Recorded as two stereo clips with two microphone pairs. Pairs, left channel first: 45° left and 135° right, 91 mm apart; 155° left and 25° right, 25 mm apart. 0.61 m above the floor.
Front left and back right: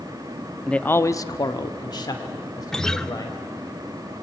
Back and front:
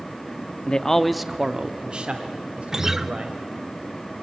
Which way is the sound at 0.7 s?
125° left.